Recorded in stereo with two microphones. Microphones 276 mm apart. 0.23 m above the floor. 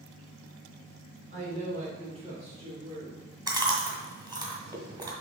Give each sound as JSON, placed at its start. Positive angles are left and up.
{"t": 1.3, "sound": "a woman speaking", "side_deg": -30, "distance_m": 2.5}
{"t": 3.5, "sound": "chewing", "side_deg": -15, "distance_m": 1.5}